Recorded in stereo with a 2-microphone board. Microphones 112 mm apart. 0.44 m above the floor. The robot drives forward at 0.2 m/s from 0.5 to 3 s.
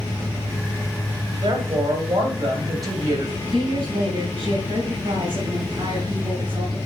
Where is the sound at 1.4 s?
40° right (ahead or behind), 2.5 m; by 3.4 s 35° right (ahead or behind), 2.5 m.